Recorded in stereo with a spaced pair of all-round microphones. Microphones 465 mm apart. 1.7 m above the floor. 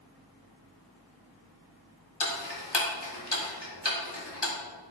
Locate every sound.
2.2 s ticking: 60° left (ahead or behind), 2.5 m